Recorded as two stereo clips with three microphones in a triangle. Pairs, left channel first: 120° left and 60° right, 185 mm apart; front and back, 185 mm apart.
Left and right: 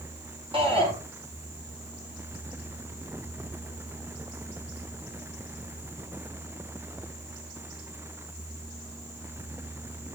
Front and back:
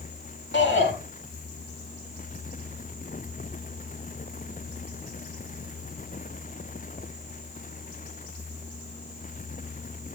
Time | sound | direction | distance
0.5 | a shout | straight ahead | 5 m